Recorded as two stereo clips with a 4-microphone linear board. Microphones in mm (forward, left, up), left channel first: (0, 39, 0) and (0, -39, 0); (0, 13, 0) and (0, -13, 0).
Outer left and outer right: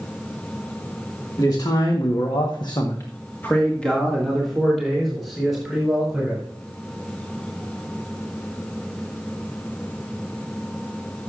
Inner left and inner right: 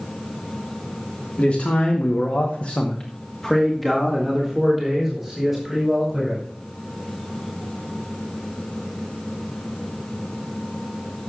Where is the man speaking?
50° left (ahead or behind), 1.9 m; by 6.4 s 5° right (ahead or behind), 5 m.